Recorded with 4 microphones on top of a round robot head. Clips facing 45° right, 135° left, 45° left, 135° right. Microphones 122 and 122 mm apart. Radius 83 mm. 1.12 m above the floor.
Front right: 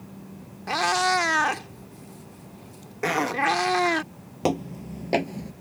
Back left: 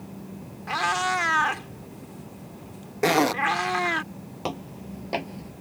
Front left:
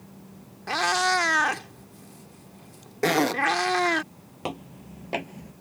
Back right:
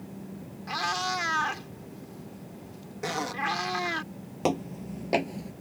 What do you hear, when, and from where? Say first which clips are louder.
0.7 s a cat meowing: front right 3 dB, front left 7 dB; 10° left
3.0 s a zipper: back left 5 dB, front left 10 dB; 75° left
4.4 s footsteps: front right 8 dB, back right 7 dB; 85° right; by 5.5 s 80° right